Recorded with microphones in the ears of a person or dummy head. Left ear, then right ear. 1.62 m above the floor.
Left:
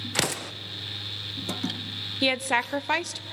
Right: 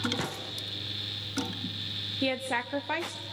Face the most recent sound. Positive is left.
turn(degrees=25)  # may be behind; listen again after turning